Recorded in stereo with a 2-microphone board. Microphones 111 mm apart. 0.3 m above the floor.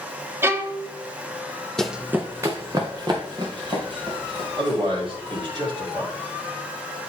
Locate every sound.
0.4 s a violin: 20° right (ahead or behind), 0.6 m
1.8 s running footsteps: 5° left (ahead or behind), 0.6 m; by 5.4 s 45° right (ahead or behind), 4.5 m
4.6 s a man speaking: 50° right (ahead or behind), 2.5 m